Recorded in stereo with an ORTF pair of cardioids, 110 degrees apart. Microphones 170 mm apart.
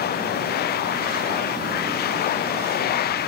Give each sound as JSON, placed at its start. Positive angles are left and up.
{"t": 0.0, "sound": "a machine running", "azimuth_deg": 70}